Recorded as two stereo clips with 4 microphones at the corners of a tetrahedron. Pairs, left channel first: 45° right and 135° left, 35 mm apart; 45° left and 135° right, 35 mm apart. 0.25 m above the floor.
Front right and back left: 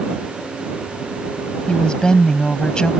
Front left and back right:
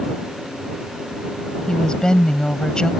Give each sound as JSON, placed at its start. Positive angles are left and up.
{"t": 1.7, "sound": "a woman speaking", "azimuth_deg": -5}